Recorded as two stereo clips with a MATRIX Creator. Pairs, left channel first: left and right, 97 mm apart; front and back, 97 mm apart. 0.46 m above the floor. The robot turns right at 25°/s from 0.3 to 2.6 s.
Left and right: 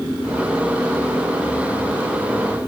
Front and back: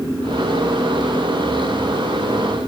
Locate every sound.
Only background noise.